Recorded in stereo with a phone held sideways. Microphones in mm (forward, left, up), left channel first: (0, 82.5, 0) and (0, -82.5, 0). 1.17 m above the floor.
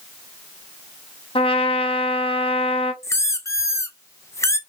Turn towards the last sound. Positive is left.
turn(degrees=15)  # may be behind; listen again after turning